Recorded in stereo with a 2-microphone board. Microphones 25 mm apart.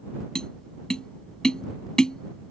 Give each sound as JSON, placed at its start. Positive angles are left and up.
{"t": 0.3, "sound": "tapping", "side_deg": 25}